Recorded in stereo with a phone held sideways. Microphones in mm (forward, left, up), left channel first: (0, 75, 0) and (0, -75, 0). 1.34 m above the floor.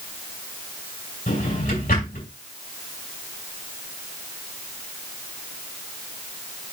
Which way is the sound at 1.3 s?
80° left.